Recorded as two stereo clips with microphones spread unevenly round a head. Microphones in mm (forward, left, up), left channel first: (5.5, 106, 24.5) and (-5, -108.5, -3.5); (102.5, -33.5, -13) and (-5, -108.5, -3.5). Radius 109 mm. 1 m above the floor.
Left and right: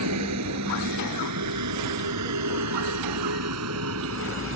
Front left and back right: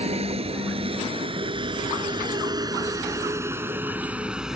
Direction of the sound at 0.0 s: 105° right.